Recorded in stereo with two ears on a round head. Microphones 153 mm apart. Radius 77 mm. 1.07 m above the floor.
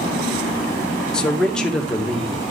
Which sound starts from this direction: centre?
A man speaking, at 1.1 s.